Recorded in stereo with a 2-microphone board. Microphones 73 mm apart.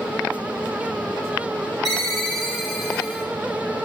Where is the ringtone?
5° left (ahead or behind), 5 m.